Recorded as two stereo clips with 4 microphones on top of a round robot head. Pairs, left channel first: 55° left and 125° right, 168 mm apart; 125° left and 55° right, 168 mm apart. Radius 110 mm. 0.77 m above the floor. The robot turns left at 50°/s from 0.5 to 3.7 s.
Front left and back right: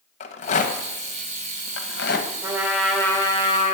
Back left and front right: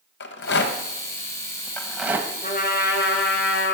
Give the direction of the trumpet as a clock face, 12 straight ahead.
6 o'clock.